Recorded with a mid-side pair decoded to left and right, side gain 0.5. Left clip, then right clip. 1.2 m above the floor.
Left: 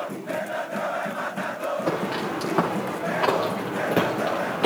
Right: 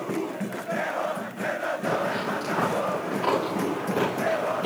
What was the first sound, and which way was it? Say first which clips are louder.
Footsteps: even; 50° left.